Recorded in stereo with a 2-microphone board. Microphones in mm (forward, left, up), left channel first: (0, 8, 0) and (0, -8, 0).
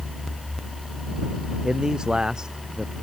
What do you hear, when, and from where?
1.6 s a man speaking: 50° right (ahead or behind)